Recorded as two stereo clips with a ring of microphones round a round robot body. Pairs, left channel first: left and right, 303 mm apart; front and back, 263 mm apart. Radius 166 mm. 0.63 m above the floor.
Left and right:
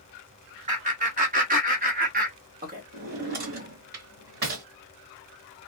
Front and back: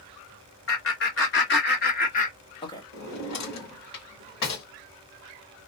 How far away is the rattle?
I don't hear a rattle.